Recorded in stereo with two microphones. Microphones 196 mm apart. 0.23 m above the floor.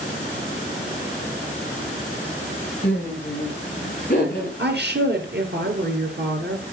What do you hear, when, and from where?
2.8 s laughter: 40° left (ahead or behind), 8 m; by 4.5 s 45° left (ahead or behind), 6.5 m
4.6 s a woman speaking: 60° right (ahead or behind), 3.5 m